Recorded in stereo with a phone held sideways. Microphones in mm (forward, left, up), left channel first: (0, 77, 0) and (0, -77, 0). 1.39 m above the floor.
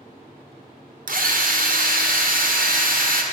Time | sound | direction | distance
1.1 | a drill | 60° right (ahead or behind) | 0.7 m